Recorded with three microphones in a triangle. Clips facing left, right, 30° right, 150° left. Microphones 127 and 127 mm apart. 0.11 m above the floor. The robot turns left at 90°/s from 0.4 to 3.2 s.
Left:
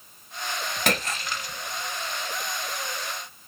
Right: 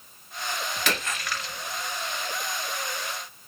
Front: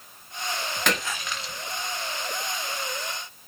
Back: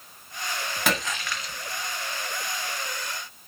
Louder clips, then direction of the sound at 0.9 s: Left 4 dB, back 1 dB; 70° left.